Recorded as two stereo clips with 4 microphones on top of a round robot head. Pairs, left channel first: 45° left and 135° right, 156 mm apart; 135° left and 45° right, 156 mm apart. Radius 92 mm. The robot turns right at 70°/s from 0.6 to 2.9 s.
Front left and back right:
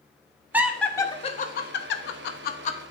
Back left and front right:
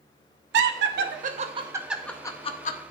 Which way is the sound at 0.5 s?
55° right.